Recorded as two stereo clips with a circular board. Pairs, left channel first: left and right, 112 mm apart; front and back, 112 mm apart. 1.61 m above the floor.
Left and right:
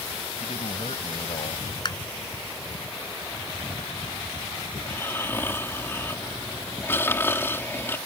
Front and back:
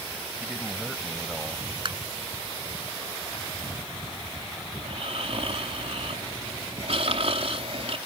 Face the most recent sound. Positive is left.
turn(degrees=160)